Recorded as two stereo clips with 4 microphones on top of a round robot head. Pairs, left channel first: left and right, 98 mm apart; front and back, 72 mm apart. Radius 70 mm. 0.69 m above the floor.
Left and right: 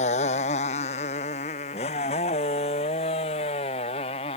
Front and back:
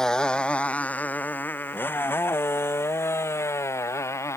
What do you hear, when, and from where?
0.0 s a motorcycle: 80° left; by 4.4 s 50° left